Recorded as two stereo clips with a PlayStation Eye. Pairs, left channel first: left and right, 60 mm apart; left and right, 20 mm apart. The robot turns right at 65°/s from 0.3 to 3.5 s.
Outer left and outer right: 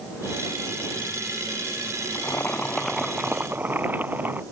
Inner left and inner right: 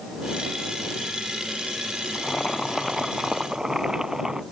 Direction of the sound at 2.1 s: 125° left.